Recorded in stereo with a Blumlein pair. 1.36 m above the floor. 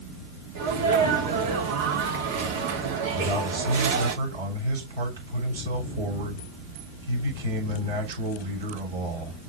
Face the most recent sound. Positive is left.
turn(degrees=-60)